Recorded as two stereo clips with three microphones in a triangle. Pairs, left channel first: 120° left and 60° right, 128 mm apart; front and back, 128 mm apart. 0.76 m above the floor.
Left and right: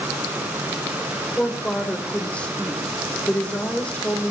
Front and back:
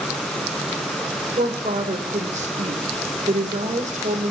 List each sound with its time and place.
1.4 s a woman speaking: 160° right, 2.5 m